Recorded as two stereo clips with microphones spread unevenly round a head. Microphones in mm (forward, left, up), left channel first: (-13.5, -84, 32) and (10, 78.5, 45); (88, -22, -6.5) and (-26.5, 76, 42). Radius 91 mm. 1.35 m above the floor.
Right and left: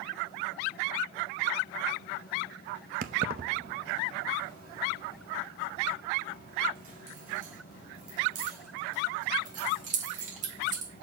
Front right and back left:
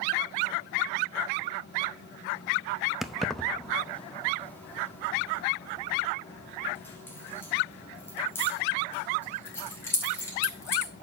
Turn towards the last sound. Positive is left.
turn(degrees=35)